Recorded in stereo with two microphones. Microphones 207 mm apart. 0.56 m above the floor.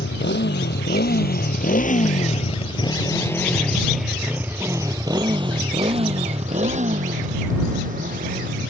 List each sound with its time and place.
0.0 s a motorcycle: 65° left (ahead or behind); by 8.7 s 50° right (ahead or behind)